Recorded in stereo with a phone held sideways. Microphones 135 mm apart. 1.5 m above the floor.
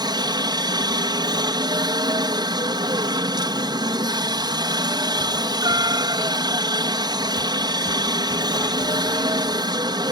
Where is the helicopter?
30° right (ahead or behind).